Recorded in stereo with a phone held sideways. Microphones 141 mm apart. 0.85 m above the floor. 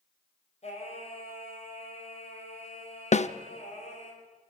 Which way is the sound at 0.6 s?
50° left (ahead or behind).